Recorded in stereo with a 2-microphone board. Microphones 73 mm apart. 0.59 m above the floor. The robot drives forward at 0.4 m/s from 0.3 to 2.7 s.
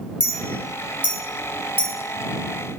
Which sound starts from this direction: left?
A clink, at 0.2 s.